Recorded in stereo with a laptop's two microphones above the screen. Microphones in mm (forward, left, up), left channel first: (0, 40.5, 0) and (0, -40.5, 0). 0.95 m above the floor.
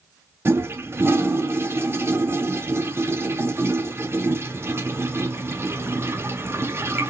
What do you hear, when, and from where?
0.5 s a toilet flushing: 30° right (ahead or behind), 0.5 m